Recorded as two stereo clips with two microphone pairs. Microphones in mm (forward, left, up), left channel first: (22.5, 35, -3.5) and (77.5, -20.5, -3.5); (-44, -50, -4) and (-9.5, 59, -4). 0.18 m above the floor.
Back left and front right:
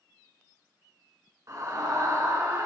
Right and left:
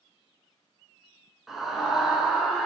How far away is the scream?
About 2.0 m.